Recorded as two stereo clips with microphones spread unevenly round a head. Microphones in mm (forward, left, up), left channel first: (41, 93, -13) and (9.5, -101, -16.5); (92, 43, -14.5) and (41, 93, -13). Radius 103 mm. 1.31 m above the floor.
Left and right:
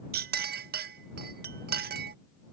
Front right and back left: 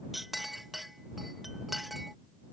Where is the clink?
135° right.